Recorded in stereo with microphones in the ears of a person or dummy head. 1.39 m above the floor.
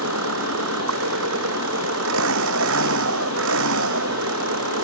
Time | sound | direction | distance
0.0 | an engine running | 80° right | ?